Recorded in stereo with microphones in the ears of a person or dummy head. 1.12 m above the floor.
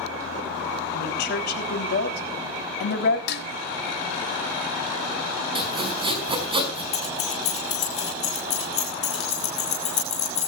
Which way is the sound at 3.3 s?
65° left (ahead or behind).